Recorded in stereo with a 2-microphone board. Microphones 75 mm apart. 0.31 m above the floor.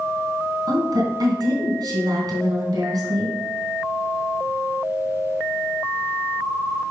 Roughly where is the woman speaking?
Right.